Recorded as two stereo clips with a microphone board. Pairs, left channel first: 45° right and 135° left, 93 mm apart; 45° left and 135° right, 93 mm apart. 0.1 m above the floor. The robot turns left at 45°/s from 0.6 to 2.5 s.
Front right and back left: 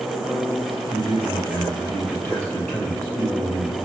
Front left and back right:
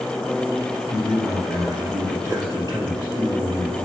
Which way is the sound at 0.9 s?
55° right.